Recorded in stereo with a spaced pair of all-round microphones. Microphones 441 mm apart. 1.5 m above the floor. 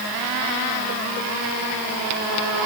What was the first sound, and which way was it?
Only background noise.